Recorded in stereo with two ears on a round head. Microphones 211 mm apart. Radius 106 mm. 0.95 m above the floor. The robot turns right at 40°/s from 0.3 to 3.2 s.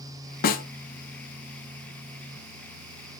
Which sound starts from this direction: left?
A snare drum, at 0.4 s.